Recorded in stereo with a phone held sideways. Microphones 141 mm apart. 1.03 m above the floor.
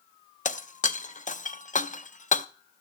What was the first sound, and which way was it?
Breaking glass, 60° left (ahead or behind).